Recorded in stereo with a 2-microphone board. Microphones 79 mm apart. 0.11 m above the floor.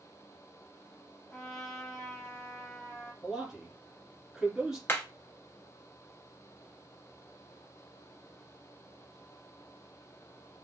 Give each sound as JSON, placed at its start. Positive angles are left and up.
{"t": 1.3, "sound": "a trumpet", "side_deg": 30, "distance_m": 1.6}
{"t": 3.2, "sound": "a man speaking", "side_deg": -10, "distance_m": 1.6}
{"t": 4.9, "sound": "hammering", "side_deg": 30, "distance_m": 0.6}